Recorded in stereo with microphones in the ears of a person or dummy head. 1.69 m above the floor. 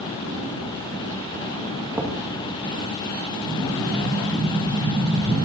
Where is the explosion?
35° right (ahead or behind), 3.5 m.